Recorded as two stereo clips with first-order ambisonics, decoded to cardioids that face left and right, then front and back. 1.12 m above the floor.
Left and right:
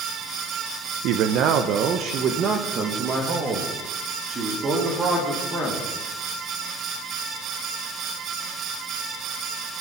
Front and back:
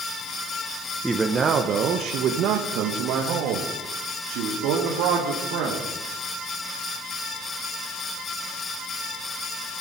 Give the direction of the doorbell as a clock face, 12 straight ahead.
I don't hear a doorbell.